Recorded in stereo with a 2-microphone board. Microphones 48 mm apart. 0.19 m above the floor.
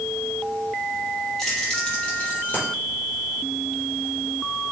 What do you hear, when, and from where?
1.4 s keys jangling: 10° left (ahead or behind), 3.5 m; by 2.7 s 40° left (ahead or behind), 3.5 m